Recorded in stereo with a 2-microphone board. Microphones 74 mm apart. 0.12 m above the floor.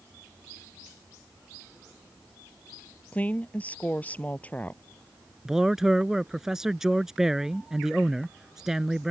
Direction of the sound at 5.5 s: 5° right (ahead or behind).